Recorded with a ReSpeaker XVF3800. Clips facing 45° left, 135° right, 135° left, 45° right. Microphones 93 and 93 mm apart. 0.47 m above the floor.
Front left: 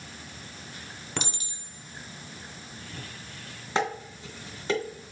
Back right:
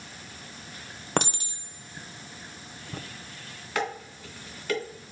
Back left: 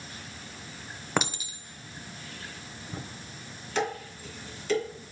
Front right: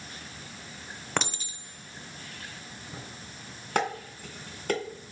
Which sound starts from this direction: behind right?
A clink, at 1.2 s.